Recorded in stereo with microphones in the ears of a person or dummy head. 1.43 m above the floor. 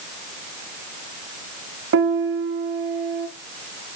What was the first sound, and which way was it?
A piano, 60° right (ahead or behind).